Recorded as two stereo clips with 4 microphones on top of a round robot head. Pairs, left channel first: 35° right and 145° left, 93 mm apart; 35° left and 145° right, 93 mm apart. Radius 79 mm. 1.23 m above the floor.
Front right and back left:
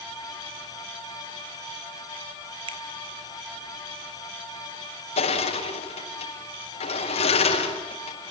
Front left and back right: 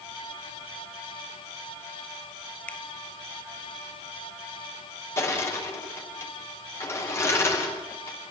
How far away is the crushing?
About 6 m.